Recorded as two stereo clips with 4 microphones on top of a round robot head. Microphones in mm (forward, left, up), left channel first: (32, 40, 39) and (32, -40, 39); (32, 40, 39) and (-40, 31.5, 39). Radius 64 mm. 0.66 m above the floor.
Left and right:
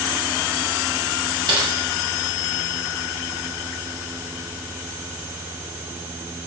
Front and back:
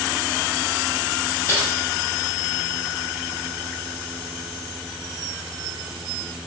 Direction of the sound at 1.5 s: 60° right.